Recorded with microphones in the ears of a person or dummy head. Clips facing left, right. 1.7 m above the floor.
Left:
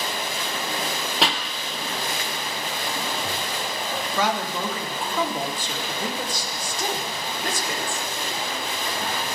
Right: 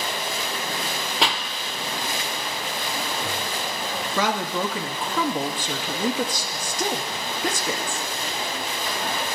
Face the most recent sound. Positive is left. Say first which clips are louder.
# right 1 dB
turn(degrees=-55)  # may be behind; listen again after turning